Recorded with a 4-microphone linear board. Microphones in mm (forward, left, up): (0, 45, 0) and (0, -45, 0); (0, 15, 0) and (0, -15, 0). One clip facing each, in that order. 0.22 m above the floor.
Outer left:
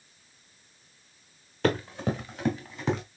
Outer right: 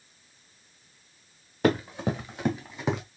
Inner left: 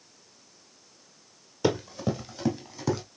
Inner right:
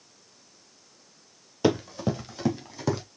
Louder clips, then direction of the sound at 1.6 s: Outer right 2 dB, inner right 2 dB; 15° right (ahead or behind).